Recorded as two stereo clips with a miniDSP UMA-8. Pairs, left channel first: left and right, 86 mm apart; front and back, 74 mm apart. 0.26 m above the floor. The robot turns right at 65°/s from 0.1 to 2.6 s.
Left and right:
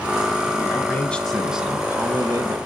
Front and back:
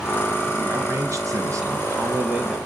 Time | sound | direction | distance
0.6 | a man speaking | 125° left | 1.4 m